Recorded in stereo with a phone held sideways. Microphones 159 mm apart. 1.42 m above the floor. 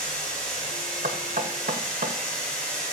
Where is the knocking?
60° right (ahead or behind), 1.1 m.